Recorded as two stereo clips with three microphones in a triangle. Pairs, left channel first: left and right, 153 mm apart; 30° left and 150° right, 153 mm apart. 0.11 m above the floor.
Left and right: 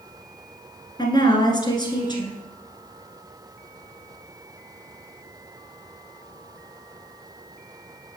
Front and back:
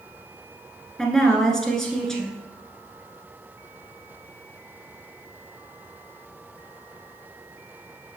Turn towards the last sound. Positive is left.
turn(degrees=115)